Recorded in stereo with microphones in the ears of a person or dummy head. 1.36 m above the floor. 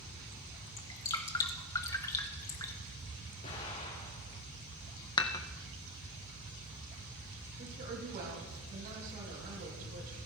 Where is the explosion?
35° left (ahead or behind), 3 m.